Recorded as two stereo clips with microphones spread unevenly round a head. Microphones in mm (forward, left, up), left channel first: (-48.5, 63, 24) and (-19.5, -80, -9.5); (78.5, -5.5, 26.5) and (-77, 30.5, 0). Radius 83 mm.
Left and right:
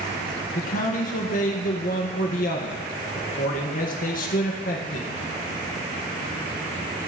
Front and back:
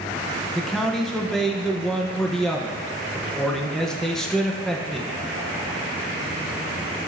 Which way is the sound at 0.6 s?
85° left.